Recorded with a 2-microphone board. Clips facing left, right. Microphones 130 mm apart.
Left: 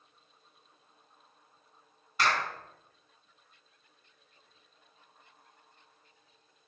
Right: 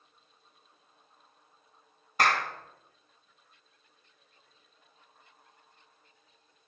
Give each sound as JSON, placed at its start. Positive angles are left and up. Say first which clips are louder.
{"t": 2.2, "sound": "a clap", "louder": "right 2 dB", "side_deg": -50, "distance_m": 1.7}